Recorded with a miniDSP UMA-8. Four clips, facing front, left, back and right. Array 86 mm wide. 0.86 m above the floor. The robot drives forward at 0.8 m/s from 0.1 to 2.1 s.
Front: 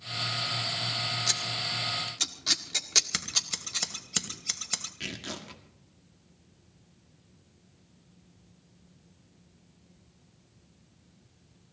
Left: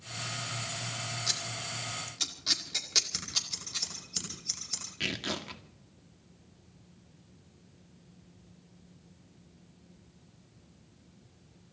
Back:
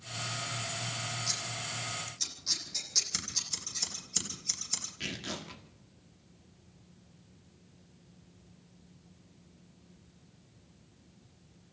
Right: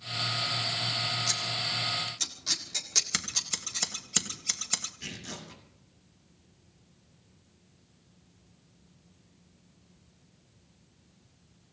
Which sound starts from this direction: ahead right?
Scissors, at 3.1 s.